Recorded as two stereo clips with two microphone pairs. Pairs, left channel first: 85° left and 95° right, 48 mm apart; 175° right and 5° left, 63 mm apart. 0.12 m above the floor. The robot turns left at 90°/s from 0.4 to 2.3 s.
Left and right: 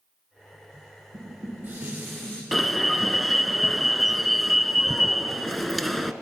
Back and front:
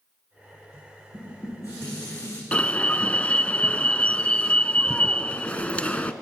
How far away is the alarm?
About 1.0 m.